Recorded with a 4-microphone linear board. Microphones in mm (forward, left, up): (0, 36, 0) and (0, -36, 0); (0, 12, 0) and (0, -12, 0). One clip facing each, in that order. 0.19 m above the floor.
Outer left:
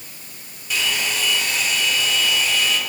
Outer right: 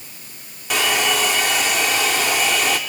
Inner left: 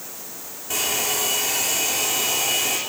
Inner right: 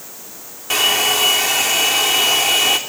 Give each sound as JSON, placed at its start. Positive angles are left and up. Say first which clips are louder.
{"t": 0.7, "sound": "a hair dryer", "louder": "outer right 5 dB, inner right 9 dB", "side_deg": -75, "distance_m": 3.0}